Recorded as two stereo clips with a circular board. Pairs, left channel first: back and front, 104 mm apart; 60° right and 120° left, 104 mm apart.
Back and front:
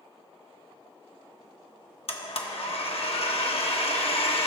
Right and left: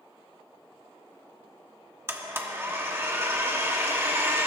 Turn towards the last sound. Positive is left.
turn(degrees=-175)